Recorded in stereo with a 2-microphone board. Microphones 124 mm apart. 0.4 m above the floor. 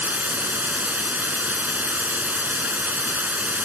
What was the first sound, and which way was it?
Running water, 15° right (ahead or behind).